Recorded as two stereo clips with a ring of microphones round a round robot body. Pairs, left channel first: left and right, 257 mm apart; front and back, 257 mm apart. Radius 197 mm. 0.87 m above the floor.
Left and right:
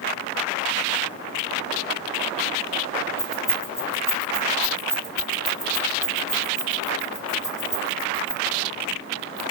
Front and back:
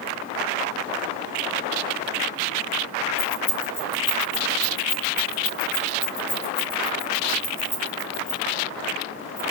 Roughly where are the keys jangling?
Ahead.